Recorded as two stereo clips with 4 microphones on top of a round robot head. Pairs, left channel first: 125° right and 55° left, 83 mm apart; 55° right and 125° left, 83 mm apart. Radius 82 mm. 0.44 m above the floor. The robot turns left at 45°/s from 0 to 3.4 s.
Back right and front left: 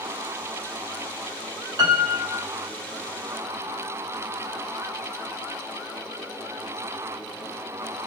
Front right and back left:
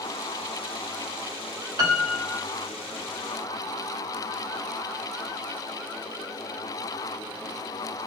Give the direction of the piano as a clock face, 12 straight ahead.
9 o'clock.